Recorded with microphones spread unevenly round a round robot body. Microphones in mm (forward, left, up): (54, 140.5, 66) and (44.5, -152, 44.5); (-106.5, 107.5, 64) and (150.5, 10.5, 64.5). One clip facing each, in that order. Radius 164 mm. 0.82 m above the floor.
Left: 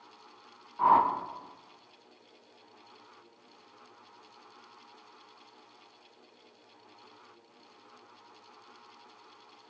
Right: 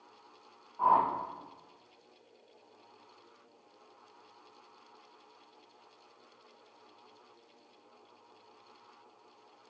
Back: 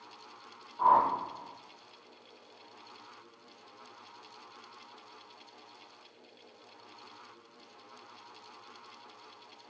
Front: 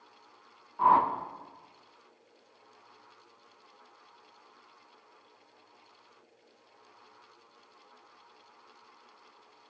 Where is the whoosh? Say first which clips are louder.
Left 3 dB, front 1 dB; 30° left, 0.7 m.